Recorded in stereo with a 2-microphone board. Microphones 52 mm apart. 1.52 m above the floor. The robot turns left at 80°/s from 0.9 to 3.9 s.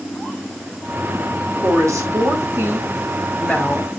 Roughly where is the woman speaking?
Ahead right.